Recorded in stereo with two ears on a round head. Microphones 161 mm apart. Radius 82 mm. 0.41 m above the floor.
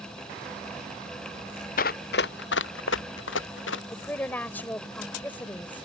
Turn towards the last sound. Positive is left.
turn(degrees=10)  # may be behind; listen again after turning